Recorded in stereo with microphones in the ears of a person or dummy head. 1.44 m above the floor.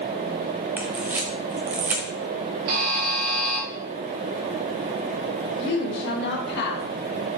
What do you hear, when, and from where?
0.8 s a camera shutter: 5° right (ahead or behind), 0.7 m
2.7 s a buzzer: 45° right (ahead or behind), 1.4 m
5.6 s a woman speaking: 60° left (ahead or behind), 1.8 m